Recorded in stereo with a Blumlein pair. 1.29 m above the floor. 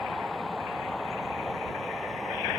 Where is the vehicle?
5° left; by 2.6 s 5° right.